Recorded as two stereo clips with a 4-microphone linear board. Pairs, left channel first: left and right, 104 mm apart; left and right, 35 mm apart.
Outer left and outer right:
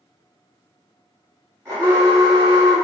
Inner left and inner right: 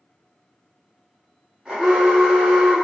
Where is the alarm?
30° right (ahead or behind), 1.4 m.